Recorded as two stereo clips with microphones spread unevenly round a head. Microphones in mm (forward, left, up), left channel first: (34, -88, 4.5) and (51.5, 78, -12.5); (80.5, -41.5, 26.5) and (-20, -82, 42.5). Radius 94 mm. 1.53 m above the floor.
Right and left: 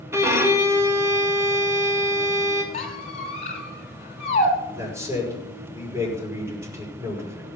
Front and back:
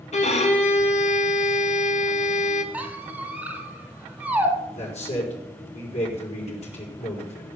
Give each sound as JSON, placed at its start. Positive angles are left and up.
{"t": 0.1, "sound": "a violin", "azimuth_deg": 10, "distance_m": 2.0}
{"t": 2.7, "sound": "a squeak", "azimuth_deg": -95, "distance_m": 2.0}
{"t": 4.7, "sound": "a man speaking", "azimuth_deg": 10, "distance_m": 5.5}